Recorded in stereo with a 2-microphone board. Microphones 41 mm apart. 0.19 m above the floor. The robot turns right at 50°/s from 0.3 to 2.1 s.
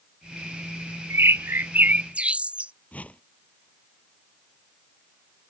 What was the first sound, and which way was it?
A bird, 75° right.